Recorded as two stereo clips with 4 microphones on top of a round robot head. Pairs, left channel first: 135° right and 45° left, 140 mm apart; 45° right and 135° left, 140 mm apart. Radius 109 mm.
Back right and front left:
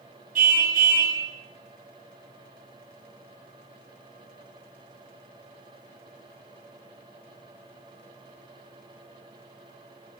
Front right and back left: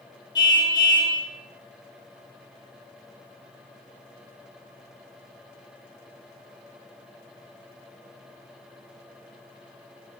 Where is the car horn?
20° left, 5 m.